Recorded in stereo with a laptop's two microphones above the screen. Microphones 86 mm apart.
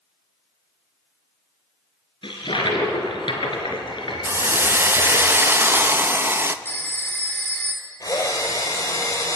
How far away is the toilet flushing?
About 3.5 m.